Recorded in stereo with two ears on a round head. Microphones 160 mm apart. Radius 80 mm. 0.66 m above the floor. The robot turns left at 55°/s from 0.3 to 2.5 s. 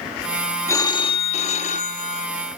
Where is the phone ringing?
155° left, 0.7 m; by 2.3 s 70° left, 0.7 m.